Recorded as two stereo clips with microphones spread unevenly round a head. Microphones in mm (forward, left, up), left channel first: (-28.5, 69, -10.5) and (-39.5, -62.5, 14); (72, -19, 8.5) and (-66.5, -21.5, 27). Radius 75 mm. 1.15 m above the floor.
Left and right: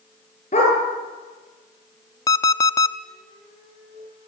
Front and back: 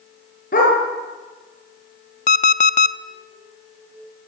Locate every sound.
0.5 s a dog barking: 35° left, 9.5 m
2.3 s an alarm clock: 15° left, 0.7 m